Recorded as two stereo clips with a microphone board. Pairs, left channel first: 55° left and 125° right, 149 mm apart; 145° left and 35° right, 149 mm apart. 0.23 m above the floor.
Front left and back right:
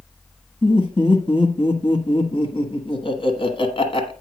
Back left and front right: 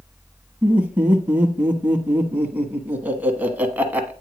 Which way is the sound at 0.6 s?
40° left.